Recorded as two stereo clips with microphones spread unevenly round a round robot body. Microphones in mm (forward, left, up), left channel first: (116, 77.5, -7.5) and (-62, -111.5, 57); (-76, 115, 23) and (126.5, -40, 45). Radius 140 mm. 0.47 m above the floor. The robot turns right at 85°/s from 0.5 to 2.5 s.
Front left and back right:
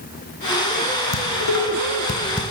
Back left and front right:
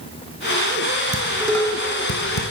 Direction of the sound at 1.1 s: 25° left.